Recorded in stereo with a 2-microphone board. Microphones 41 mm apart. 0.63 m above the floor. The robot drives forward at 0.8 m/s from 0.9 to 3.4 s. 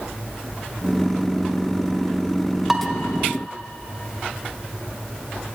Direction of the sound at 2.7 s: 10° right (ahead or behind).